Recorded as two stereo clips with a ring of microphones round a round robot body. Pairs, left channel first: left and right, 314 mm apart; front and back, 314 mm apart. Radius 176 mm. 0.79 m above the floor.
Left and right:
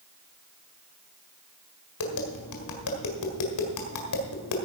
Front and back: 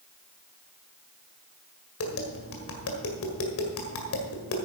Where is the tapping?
50° left, 1.9 m.